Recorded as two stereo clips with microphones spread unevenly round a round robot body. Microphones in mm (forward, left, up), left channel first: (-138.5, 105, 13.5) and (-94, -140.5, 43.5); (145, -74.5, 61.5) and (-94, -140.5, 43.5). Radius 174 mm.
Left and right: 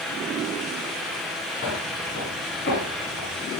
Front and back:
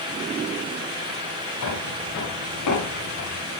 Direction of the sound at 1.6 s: 25° left.